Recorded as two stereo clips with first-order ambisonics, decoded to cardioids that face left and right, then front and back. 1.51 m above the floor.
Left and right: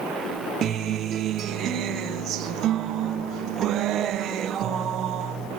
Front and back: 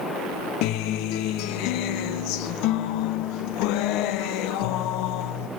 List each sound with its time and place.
0.6 s a guitar: 30° right, 1.3 m